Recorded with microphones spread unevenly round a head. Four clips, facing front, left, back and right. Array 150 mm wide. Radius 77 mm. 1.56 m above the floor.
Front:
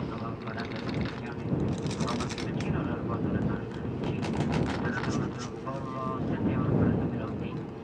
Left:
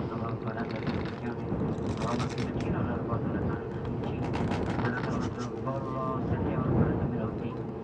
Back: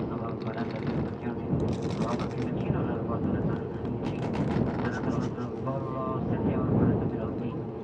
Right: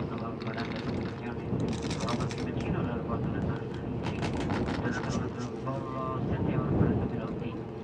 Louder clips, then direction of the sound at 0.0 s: Left 1 dB, back 3 dB; 165° left.